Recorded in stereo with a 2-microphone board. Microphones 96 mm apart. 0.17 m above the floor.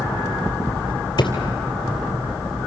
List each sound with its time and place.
1.2 s a drawer: 55° left (ahead or behind), 2.5 m